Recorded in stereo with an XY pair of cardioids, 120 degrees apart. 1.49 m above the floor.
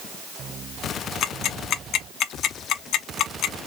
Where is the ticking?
70° left, 0.5 m.